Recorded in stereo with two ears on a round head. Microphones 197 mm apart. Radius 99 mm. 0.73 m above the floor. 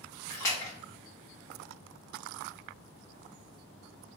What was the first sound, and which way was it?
A splash, 15° left (ahead or behind).